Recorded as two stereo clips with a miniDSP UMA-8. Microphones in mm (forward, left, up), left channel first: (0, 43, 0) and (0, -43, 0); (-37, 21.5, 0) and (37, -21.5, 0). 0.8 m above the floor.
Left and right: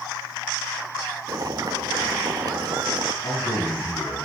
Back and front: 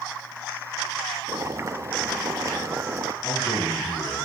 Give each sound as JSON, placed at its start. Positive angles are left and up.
{"t": 1.3, "sound": "boiling", "azimuth_deg": -70, "distance_m": 0.7}
{"t": 3.2, "sound": "a man speaking", "azimuth_deg": 125, "distance_m": 8.5}